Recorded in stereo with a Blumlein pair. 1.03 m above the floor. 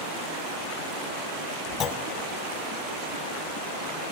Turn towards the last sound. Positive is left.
turn(degrees=25)